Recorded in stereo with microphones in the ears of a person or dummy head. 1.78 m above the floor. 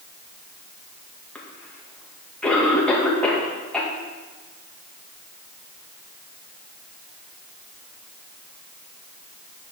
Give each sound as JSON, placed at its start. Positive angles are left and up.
{"t": 1.4, "sound": "a cough", "side_deg": 5, "distance_m": 2.0}